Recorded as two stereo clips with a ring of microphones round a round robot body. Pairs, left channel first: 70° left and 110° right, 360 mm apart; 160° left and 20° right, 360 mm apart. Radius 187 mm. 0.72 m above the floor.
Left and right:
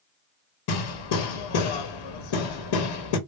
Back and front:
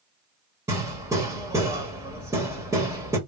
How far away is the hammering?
About 1.0 m.